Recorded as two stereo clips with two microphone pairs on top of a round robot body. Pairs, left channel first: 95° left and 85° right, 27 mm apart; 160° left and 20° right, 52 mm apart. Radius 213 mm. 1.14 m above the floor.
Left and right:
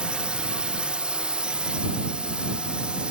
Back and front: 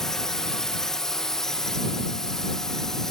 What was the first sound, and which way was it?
A drone, 120° right.